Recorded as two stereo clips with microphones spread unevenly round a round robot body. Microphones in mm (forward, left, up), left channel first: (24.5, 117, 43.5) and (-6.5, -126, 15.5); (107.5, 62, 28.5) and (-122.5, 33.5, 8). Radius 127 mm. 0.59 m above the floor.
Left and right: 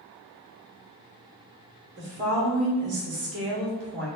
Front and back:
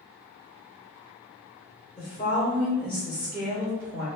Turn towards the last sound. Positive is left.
turn(degrees=-65)